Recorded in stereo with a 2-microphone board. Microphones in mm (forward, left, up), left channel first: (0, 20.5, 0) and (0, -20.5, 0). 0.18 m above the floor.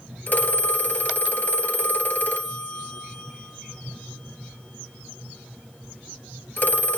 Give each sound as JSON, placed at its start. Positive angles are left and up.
{"t": 0.3, "sound": "a phone ringing", "side_deg": 50, "distance_m": 2.5}